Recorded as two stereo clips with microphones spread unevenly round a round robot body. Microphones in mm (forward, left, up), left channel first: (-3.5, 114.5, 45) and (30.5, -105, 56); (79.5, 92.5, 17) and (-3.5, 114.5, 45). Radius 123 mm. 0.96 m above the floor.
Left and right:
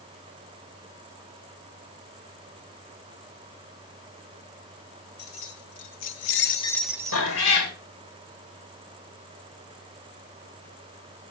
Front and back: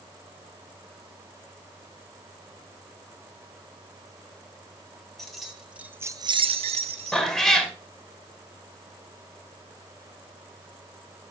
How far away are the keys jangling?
About 2.0 m.